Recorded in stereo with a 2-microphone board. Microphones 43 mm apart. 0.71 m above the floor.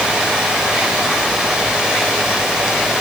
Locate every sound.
Only background noise.